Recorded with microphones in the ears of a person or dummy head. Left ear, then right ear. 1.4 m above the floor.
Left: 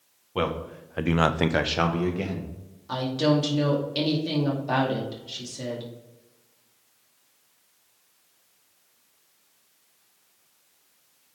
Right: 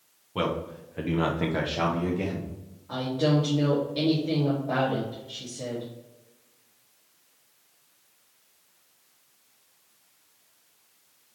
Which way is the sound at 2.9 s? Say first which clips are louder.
Left 2 dB; 80° left.